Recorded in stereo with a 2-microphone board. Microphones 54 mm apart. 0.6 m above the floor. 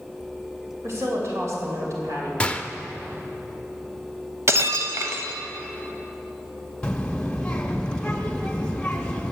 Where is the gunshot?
20° left (ahead or behind), 0.5 m.